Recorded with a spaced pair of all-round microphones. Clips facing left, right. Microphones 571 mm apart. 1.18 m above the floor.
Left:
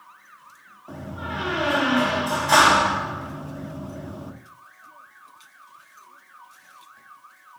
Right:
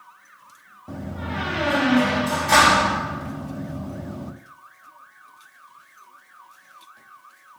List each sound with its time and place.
0.9 s a door slam: 45° right (ahead or behind), 1.3 m